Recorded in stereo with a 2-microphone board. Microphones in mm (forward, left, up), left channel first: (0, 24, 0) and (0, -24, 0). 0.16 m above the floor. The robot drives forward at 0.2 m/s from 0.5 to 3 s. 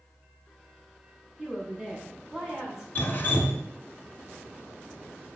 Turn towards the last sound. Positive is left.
turn(degrees=40)  # may be behind; listen again after turning